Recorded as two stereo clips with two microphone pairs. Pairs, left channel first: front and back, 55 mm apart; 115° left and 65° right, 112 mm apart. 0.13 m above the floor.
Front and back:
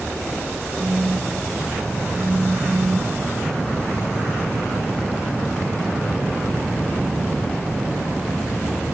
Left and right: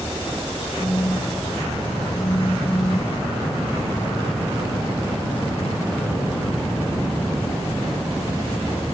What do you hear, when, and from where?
0.8 s a phone buzzing: 160° left, 2.0 m